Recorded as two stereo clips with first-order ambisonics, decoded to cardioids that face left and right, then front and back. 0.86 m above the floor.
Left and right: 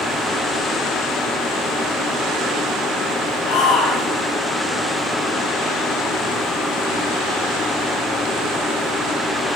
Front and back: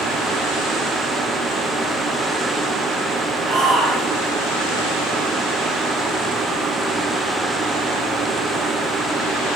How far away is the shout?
About 7 m.